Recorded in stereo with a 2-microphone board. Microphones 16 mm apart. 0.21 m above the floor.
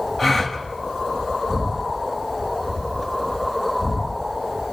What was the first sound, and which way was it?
A gasp, centre (ahead or behind).